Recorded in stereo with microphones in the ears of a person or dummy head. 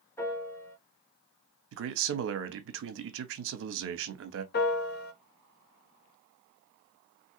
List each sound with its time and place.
0.2 s a piano: 5° left (ahead or behind), 1.2 m
1.7 s a man speaking: 60° right (ahead or behind), 0.7 m
4.5 s a piano: 45° left (ahead or behind), 0.6 m